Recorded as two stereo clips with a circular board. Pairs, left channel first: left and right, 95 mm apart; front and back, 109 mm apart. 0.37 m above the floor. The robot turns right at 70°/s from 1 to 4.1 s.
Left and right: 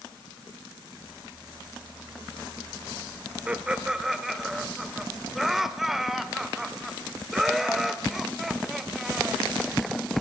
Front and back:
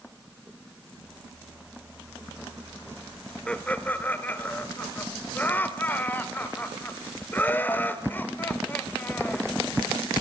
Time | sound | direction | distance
3.5 | laughter | 55° right | 1.4 m